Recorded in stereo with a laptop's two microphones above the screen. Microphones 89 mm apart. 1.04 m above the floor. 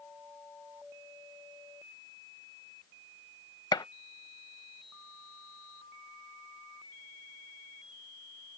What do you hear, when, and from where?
3.7 s a gunshot: 50° left (ahead or behind)